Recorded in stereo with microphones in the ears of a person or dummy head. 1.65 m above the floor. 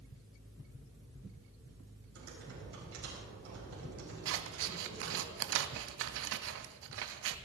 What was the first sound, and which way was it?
Typing on a keyboard, 75° right (ahead or behind).